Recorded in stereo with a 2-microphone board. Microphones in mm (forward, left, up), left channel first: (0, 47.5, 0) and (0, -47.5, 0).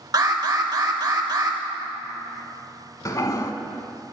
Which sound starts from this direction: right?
An alarm, at 0.1 s.